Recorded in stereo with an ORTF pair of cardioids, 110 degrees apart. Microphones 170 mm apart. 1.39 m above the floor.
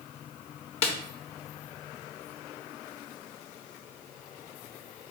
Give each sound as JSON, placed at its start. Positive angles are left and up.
{"t": 0.8, "sound": "a snare drum", "azimuth_deg": 40, "distance_m": 0.7}